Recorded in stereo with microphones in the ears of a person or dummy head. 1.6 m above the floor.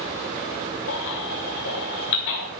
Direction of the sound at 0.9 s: 55° left (ahead or behind).